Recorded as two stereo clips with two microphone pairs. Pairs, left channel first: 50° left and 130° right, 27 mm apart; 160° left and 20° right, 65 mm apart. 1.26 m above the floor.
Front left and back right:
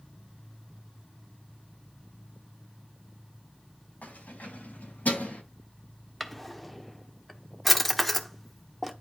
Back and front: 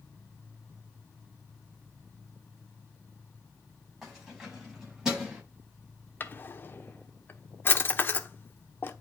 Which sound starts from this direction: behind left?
A drawer, at 6.2 s.